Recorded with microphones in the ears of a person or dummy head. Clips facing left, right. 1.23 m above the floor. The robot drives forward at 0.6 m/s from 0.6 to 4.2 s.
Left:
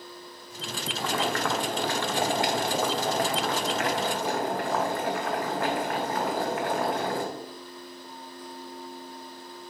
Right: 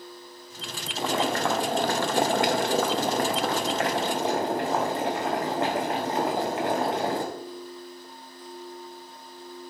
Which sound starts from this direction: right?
Boiling, at 1.0 s.